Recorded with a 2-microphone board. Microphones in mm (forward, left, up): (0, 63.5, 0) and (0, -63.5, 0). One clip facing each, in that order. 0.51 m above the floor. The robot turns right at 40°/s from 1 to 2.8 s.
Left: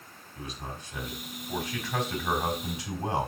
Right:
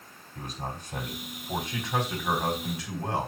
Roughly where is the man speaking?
Ahead right.